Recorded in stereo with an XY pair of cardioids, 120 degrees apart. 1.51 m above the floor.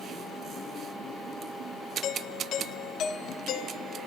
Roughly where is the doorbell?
Ahead left.